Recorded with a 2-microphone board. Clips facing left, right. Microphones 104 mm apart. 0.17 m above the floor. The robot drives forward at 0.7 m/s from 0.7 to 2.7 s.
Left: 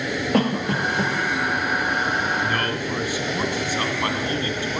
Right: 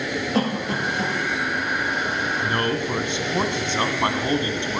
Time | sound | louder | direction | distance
0.3 | a cough | left 3 dB | 60° left (ahead or behind) | 4 m
2.4 | a man speaking | right 1 dB | 25° right (ahead or behind) | 1.2 m